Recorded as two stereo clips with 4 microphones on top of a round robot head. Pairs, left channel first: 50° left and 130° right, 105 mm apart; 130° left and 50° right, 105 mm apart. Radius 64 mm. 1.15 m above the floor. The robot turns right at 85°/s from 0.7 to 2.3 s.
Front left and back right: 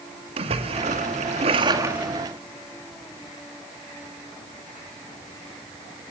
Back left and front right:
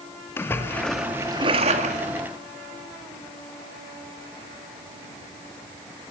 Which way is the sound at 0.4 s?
160° right.